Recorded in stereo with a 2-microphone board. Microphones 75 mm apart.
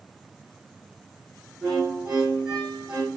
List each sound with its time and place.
1.6 s a violin: 10° right (ahead or behind), 4.5 m